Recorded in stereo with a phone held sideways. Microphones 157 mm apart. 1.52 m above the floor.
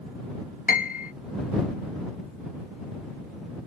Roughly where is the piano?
Left.